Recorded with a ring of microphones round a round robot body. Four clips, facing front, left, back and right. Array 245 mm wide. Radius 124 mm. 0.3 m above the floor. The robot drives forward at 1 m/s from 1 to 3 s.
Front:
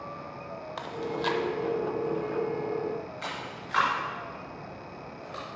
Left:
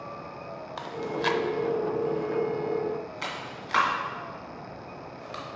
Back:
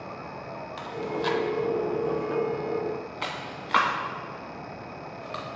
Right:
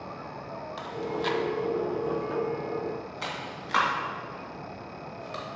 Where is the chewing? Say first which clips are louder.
Left 1 dB, back 2 dB; 50° left, 0.7 m; by 5.4 s 170° left, 1.9 m.